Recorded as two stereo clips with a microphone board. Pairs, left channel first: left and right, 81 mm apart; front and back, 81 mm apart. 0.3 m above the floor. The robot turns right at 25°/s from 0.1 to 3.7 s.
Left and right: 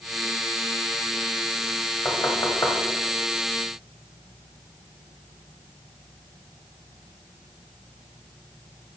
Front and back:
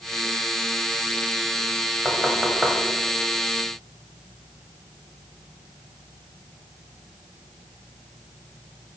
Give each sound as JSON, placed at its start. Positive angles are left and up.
{"t": 2.0, "sound": "knocking", "azimuth_deg": 70, "distance_m": 1.6}